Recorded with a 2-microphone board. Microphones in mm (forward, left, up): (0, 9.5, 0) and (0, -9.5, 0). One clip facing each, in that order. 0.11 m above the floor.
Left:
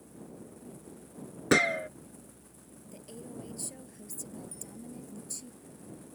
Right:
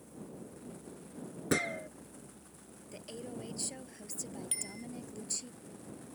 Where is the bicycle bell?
80° right.